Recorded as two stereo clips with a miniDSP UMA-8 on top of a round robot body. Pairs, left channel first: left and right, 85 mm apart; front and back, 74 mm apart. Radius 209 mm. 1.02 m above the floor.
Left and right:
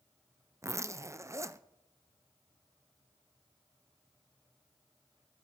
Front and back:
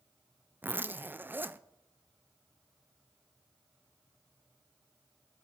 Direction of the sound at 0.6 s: 130° right.